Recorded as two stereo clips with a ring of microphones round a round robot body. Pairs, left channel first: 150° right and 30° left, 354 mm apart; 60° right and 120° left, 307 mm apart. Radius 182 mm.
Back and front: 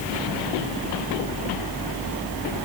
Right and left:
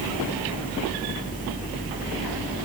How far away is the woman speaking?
I don't hear a woman speaking.